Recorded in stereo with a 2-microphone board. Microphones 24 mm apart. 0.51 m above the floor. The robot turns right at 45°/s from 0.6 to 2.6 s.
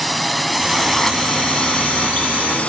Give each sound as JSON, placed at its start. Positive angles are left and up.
{"t": 0.0, "sound": "a drone", "side_deg": 0}